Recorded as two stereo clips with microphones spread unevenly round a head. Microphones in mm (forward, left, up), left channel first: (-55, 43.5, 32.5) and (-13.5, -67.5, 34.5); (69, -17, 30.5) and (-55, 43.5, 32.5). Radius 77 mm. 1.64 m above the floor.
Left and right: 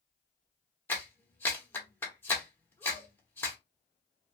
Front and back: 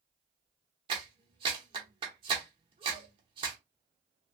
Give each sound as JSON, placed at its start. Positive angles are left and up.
{"t": 0.9, "sound": "a clap", "azimuth_deg": 165, "distance_m": 0.7}